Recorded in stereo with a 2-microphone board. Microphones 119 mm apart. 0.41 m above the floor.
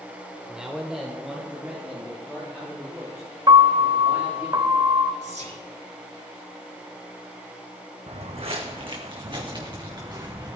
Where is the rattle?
I don't hear a rattle.